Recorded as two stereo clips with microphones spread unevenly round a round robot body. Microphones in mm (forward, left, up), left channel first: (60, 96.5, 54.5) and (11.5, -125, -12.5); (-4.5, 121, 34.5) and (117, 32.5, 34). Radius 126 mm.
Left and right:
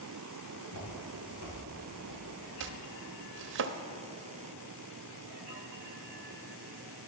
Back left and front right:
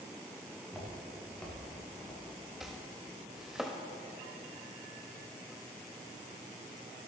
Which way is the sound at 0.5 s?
55° left.